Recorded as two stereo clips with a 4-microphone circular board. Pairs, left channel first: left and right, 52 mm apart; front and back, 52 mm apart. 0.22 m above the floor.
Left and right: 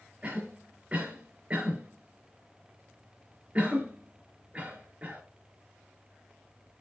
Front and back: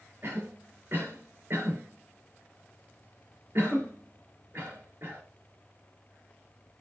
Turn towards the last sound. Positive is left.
turn(degrees=-145)